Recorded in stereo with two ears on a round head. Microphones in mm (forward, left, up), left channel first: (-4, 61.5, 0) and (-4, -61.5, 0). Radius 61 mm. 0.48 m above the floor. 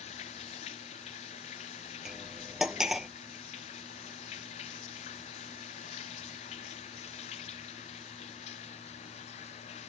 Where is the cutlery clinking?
5° right (ahead or behind).